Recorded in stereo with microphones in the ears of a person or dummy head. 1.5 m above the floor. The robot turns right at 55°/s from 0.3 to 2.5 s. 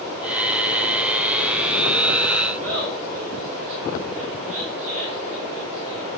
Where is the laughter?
35° right (ahead or behind), 7 m.